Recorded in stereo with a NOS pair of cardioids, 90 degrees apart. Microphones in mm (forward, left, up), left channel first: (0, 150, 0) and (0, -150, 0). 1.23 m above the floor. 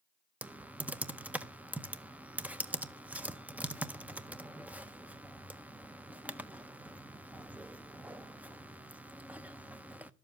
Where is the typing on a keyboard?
5° right, 0.7 m.